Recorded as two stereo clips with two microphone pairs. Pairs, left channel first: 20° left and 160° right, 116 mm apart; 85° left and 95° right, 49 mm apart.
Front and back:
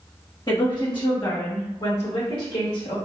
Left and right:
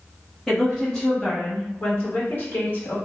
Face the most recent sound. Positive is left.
turn(degrees=45)